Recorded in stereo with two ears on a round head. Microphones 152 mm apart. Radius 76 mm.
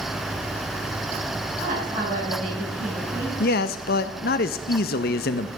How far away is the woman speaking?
About 7 m.